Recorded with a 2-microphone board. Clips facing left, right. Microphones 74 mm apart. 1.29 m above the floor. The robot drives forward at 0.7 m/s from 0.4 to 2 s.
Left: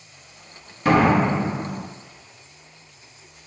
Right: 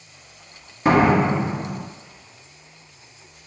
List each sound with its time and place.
0.8 s a door slam: 20° right (ahead or behind), 1.2 m; by 1.8 s 15° right (ahead or behind), 1.8 m